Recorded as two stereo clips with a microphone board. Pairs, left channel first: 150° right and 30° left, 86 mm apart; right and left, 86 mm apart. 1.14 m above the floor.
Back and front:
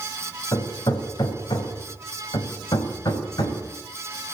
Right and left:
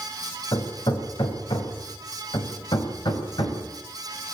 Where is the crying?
I don't hear crying.